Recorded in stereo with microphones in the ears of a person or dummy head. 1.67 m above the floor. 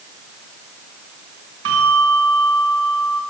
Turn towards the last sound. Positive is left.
turn(degrees=-85)